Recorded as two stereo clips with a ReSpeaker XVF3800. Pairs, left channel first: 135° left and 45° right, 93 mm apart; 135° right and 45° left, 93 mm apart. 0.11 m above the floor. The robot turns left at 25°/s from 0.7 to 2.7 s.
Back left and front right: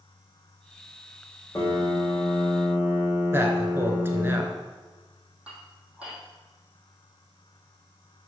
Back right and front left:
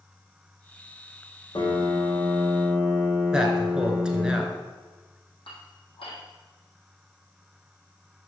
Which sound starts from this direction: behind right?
Dishes clattering, at 5.5 s.